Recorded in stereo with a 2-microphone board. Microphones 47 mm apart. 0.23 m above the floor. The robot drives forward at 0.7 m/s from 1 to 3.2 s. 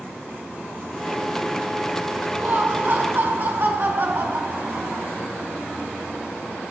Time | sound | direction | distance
2.4 | laughter | 50° right (ahead or behind) | 2 m